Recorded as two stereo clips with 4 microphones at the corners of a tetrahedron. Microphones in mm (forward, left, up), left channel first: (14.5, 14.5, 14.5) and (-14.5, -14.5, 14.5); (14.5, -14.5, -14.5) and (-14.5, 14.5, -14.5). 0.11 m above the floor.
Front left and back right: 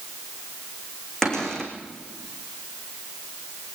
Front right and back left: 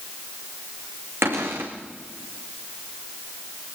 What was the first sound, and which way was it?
A cupboard door, 125° left.